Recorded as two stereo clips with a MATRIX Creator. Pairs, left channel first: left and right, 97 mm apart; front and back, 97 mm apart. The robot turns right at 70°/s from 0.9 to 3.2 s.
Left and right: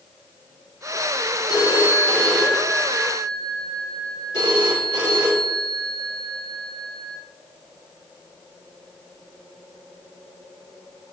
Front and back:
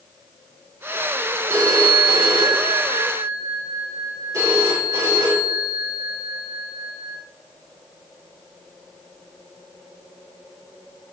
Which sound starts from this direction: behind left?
A phone ringing, at 1.5 s.